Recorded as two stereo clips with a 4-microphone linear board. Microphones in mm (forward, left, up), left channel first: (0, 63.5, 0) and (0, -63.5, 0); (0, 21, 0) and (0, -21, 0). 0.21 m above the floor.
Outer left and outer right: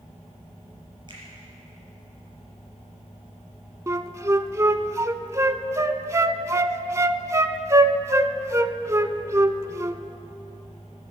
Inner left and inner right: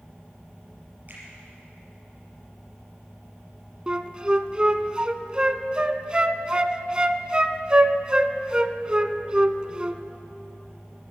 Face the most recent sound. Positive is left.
turn(degrees=-25)  # may be behind; listen again after turning